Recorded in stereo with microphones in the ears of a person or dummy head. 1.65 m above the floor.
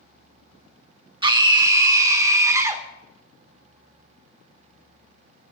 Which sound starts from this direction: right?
A scream, at 1.2 s.